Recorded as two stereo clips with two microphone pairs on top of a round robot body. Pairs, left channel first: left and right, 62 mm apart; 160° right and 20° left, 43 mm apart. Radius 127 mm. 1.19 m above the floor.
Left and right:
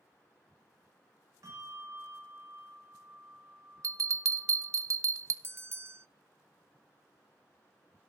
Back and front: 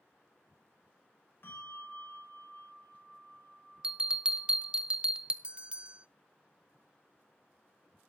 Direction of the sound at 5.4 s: 40° right.